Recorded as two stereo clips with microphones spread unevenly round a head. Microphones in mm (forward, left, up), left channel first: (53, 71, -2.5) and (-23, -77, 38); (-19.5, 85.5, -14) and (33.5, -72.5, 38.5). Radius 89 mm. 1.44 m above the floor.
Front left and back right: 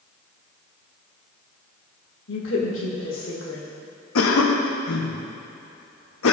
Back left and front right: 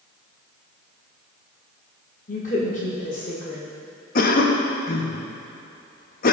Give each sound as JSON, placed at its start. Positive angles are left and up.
{"t": 2.3, "sound": "a woman speaking", "azimuth_deg": 65, "distance_m": 1.8}
{"t": 4.2, "sound": "a cough", "azimuth_deg": 65, "distance_m": 0.8}